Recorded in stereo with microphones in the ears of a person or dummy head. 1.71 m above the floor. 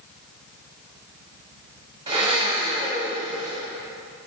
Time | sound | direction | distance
2.1 | a blender | 30° right (ahead or behind) | 1.8 m